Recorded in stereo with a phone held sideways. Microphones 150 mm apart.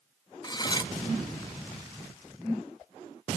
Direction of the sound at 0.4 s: 30° left (ahead or behind).